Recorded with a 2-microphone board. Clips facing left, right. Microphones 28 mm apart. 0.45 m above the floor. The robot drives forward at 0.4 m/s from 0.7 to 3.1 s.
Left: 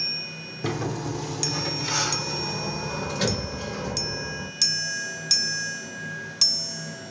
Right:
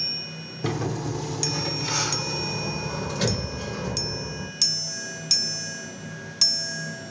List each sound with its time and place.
0.6 s a sliding door: centre (ahead or behind), 1.1 m